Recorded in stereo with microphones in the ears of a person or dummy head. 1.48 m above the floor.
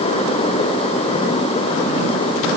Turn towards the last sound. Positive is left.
No sound to turn to.